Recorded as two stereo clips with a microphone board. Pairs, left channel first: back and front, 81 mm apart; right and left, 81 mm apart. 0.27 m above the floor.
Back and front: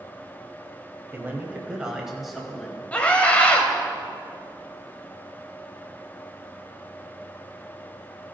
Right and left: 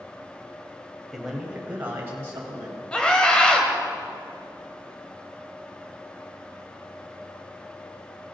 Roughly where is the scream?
Behind right.